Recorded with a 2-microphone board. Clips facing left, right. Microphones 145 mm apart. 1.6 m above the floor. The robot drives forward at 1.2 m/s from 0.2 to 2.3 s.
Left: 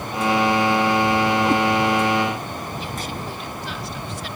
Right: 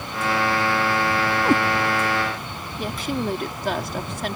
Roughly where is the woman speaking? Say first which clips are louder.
Right 4 dB; right.